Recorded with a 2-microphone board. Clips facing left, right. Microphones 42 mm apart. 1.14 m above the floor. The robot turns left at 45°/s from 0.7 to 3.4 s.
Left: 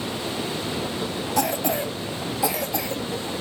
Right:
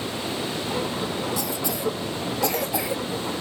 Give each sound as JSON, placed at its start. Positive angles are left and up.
{"t": 1.4, "sound": "a cough", "side_deg": 60, "distance_m": 1.4}